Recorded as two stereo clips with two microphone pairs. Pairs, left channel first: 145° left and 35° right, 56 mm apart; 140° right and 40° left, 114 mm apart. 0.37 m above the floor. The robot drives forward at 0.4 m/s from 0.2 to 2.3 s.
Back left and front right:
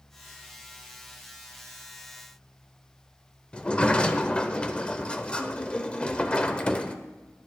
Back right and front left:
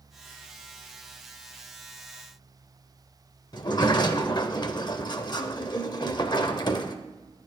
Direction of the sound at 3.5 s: 150° right.